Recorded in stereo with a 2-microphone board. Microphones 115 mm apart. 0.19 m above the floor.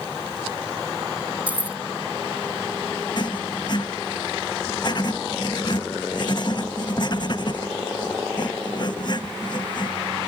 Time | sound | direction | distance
1.5 | keys jangling | 15° right (ahead or behind) | ?
3.2 | writing | 45° left (ahead or behind) | ?